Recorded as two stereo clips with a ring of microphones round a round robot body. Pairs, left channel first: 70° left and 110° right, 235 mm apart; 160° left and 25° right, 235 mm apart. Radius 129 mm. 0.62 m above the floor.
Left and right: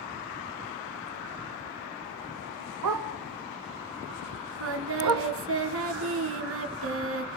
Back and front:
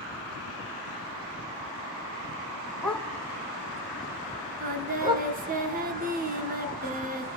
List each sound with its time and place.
2.8 s a dog barking: 115° right, 2.5 m; by 5.3 s 90° right, 3 m
4.6 s singing: 80° right, 2 m